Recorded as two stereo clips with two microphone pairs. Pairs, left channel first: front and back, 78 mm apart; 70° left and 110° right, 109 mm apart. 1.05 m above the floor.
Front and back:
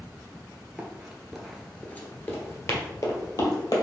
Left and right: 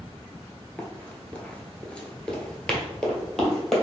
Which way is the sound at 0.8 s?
135° left.